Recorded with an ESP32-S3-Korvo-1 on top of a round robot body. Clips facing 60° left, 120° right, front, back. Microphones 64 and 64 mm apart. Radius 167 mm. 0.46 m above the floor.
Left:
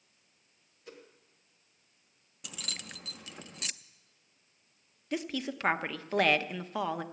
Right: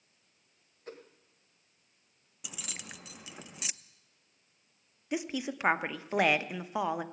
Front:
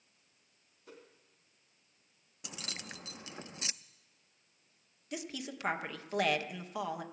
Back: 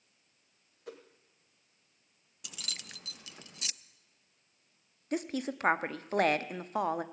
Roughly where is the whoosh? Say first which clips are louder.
Right 3 dB, back 7 dB; behind.